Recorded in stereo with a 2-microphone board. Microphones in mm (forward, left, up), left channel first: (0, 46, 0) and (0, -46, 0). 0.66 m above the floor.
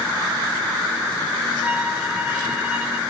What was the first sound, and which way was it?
A violin, 15° right (ahead or behind).